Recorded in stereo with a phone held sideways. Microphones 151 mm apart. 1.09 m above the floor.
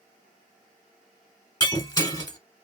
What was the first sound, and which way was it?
Breaking glass, 30° left (ahead or behind).